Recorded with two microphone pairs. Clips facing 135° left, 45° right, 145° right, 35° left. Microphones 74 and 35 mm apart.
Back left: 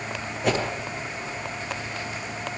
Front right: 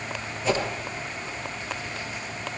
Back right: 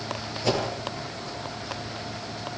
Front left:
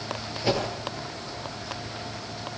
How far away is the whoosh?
About 7.5 m.